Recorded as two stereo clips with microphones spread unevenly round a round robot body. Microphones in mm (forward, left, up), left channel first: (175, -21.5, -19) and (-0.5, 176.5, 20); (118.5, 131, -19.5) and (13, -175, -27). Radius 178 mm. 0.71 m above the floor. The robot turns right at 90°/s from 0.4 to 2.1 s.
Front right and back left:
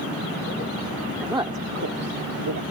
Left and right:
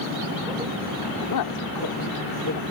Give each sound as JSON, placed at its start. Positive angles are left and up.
{"t": 1.2, "sound": "a woman speaking", "azimuth_deg": 40}